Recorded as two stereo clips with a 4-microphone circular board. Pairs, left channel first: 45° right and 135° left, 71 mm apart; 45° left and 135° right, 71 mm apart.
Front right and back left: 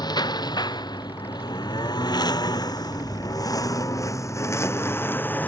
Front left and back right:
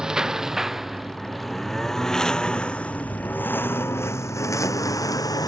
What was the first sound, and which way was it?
A lawn mower, 55° right.